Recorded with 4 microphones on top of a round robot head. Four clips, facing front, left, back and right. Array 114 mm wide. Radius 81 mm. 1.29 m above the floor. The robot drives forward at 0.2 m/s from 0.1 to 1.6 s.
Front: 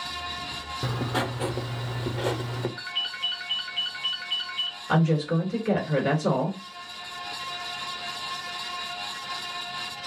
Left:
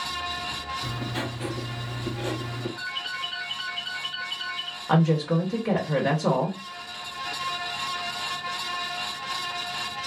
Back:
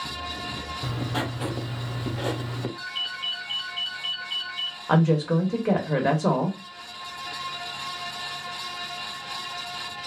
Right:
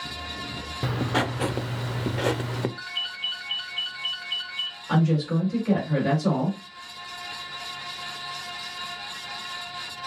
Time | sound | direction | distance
0.8 | writing | 70° right | 0.6 m
2.8 | a ringtone | 15° left | 0.6 m
4.9 | a woman speaking | 150° left | 1.1 m